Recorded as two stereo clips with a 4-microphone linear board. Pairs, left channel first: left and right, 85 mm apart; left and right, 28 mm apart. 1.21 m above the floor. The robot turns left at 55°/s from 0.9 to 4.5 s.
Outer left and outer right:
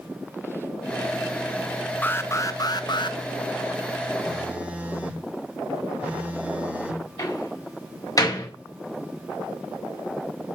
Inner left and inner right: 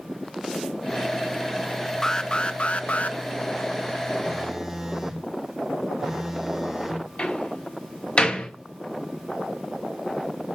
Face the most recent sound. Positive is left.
turn(degrees=50)  # may be behind; listen again after turning